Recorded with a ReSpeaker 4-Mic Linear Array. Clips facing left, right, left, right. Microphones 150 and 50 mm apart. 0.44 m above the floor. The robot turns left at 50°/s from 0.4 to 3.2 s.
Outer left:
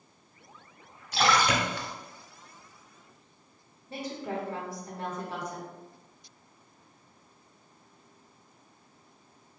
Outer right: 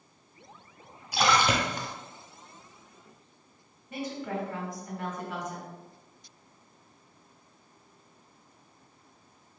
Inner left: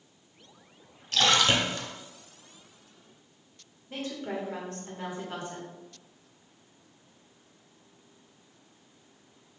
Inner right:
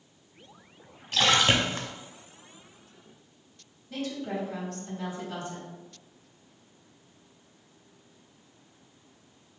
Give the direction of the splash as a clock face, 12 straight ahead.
12 o'clock.